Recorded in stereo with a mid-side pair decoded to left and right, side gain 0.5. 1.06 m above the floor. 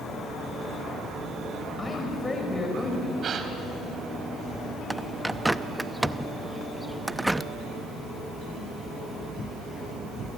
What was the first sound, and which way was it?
A woman speaking, 25° left.